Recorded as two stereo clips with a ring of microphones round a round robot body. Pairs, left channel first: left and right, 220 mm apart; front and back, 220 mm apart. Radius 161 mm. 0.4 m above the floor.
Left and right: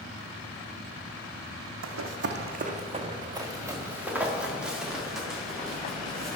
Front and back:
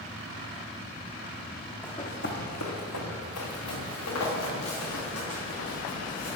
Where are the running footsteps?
85° right, 0.9 m; by 6.4 s 5° left, 4.5 m.